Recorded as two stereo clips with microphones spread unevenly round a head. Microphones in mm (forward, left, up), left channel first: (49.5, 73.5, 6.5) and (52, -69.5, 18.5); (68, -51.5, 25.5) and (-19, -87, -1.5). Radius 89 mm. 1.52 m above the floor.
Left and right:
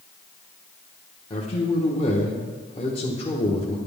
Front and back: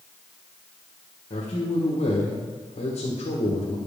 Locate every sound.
1.3 s a man speaking: 40° left, 1.3 m